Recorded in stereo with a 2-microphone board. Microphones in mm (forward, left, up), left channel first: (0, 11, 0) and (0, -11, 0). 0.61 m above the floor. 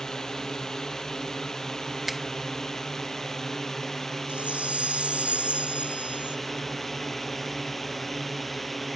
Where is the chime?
80° right.